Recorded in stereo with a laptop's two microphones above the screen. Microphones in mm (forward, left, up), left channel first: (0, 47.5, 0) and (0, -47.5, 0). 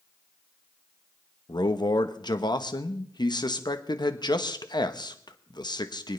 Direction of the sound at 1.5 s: 50° left (ahead or behind).